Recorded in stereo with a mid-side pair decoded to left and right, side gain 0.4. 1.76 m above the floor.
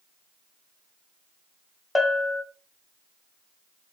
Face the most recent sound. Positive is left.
turn(degrees=20)